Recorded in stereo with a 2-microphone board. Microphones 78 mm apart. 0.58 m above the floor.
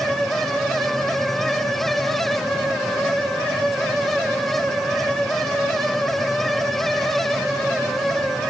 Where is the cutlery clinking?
I don't hear cutlery clinking.